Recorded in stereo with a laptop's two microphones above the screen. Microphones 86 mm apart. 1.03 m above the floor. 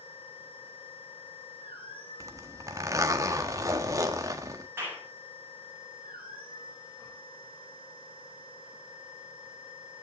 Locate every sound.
0.0 s a machine running: 80° left, 4 m
2.2 s a zipper: 40° right (ahead or behind), 1.4 m
4.8 s a clap: 25° right (ahead or behind), 8 m